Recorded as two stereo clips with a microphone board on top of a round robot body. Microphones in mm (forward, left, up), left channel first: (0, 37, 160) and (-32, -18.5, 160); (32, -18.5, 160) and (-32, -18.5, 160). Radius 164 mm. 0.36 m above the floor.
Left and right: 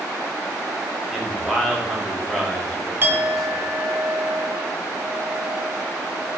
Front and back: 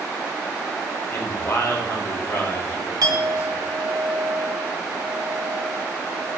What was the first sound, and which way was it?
A man speaking, 25° right.